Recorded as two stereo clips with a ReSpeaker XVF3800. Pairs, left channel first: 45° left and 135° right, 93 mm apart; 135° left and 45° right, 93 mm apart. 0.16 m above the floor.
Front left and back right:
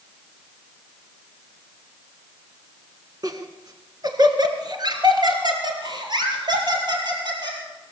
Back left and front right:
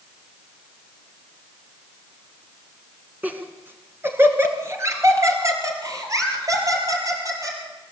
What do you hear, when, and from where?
3.2 s laughter: 110° right, 1.7 m; by 7.6 s 95° right, 4.5 m